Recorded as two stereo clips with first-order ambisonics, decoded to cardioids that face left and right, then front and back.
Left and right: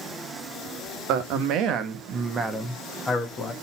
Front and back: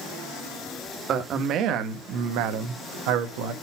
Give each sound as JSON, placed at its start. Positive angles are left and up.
{"t": 1.1, "sound": "a man speaking", "azimuth_deg": -125, "distance_m": 1.2}